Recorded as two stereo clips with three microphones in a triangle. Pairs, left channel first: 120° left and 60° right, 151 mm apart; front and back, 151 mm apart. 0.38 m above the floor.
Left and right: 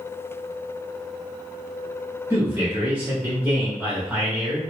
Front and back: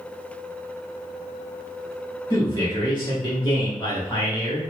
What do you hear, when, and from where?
2.3 s a man speaking: 5° left, 0.9 m